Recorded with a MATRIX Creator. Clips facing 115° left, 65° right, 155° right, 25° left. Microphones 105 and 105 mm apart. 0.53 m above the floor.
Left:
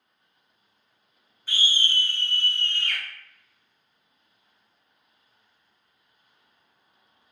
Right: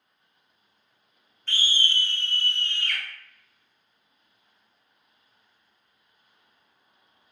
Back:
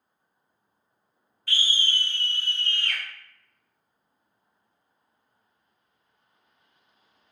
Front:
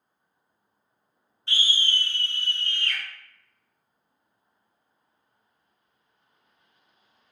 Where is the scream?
40° left, 0.8 m; by 3.0 s 160° left, 1.6 m.